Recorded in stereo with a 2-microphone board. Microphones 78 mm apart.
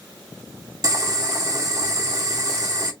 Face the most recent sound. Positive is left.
turn(degrees=-45)  # may be behind; listen again after turning